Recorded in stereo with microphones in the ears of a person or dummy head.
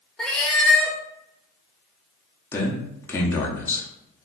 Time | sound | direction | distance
0.2 | a cat meowing | 5° left (ahead or behind) | 0.6 m
2.5 | a man speaking | 15° left (ahead or behind) | 0.6 m